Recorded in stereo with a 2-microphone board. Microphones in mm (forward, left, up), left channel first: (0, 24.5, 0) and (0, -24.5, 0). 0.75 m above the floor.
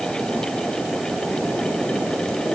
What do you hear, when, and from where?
Only background noise.